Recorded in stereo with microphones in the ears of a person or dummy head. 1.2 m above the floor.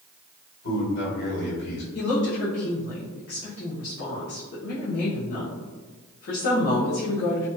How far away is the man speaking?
About 1.5 m.